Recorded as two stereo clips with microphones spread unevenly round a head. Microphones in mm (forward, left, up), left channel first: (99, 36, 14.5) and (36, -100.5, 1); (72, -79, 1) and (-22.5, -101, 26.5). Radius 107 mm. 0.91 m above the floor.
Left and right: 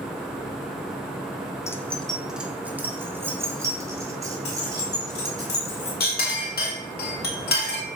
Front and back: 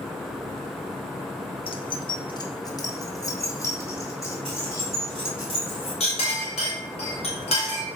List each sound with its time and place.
1.7 s keys jangling: 10° right, 0.7 m; by 5.5 s 50° right, 3 m
4.5 s keys jangling: 65° left, 2 m
6.0 s a clink: 50° left, 2 m